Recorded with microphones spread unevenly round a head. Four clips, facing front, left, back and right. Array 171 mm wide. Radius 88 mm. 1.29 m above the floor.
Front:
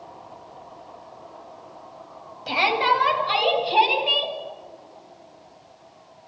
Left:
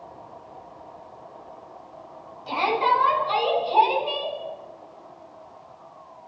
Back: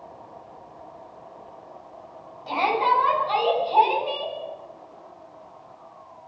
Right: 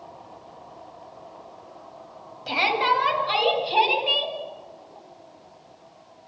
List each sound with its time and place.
2.5 s a shout: 50° right, 9.5 m